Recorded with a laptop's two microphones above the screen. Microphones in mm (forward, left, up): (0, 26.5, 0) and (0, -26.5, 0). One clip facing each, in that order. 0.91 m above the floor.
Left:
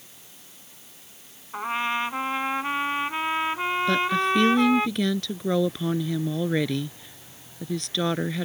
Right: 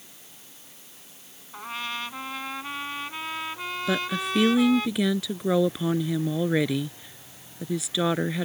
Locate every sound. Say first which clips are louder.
1.5 s a trumpet: left 7 dB; 30° left (ahead or behind)
3.9 s a woman speaking: left 3 dB; 5° right (ahead or behind)